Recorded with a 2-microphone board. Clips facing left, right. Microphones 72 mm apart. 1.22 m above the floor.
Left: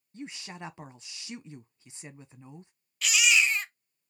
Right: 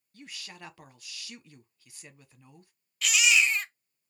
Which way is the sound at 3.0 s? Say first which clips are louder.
Even; centre (ahead or behind).